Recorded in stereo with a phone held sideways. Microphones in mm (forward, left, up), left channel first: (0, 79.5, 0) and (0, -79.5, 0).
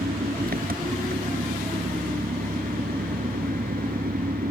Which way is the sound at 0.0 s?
70° right (ahead or behind).